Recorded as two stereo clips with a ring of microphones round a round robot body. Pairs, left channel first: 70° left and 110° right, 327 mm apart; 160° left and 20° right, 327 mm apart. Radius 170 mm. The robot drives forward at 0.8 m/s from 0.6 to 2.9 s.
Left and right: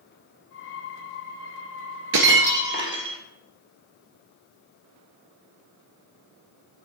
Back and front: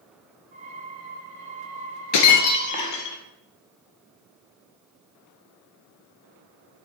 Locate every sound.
2.1 s breaking glass: 165° right, 0.9 m; by 3.2 s 170° right, 1.5 m